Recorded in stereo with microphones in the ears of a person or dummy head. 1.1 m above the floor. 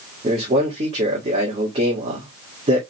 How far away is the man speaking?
About 2 m.